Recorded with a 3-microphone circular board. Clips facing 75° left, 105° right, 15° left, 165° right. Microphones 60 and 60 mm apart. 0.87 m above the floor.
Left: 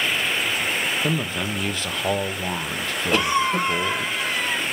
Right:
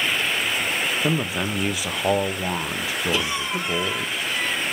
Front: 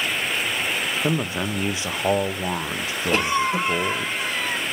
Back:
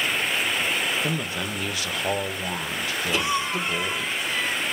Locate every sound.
1.0 s a man speaking: 35° right, 0.6 m
3.1 s a cough: 45° left, 3.5 m